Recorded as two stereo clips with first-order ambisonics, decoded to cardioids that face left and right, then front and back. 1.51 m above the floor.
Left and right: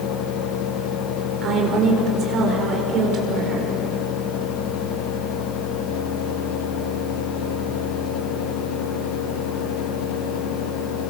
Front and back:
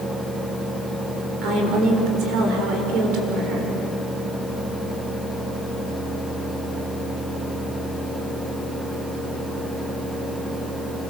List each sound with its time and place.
1.4 s a woman speaking: 145° right, 6 m